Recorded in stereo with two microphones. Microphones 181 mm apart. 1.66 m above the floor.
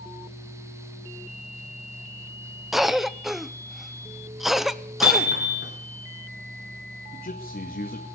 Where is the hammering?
70° left (ahead or behind), 4 m.